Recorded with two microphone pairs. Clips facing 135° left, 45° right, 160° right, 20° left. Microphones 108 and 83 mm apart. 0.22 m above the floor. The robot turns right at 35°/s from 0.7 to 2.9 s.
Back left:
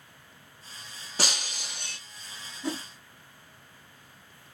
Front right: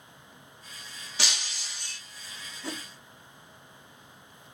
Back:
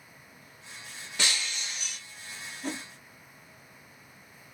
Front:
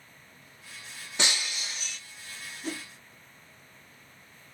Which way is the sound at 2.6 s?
150° right.